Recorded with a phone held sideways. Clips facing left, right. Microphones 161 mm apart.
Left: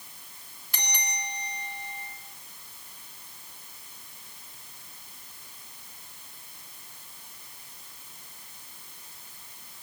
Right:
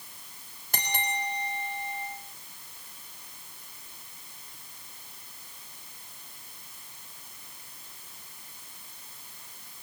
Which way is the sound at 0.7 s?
45° right (ahead or behind).